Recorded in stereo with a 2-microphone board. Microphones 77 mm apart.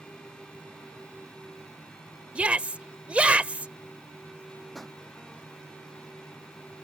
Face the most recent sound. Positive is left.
turn(degrees=0)  # may be behind; listen again after turning